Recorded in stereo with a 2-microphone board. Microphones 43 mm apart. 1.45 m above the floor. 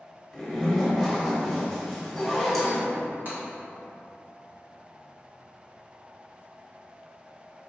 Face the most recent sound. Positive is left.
turn(degrees=-55)  # may be behind; listen again after turning